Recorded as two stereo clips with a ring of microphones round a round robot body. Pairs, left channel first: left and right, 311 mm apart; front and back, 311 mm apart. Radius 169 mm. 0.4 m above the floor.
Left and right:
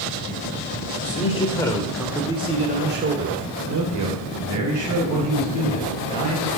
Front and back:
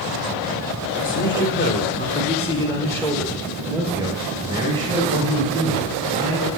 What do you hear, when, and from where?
1.0 s a man speaking: 35° left, 1.9 m; by 6.5 s 110° right, 4 m